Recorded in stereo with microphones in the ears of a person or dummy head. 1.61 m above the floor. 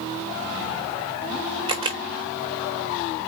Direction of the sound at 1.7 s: 25° right (ahead or behind).